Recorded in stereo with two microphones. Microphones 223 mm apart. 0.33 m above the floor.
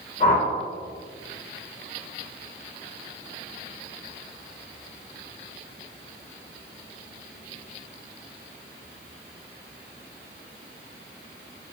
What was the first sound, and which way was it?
A whoosh, 40° left (ahead or behind).